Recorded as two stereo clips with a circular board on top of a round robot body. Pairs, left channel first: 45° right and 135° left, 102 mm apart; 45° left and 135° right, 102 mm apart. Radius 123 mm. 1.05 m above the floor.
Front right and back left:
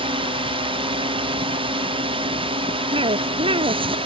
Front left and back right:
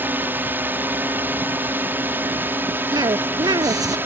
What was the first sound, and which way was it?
A drone, 155° left.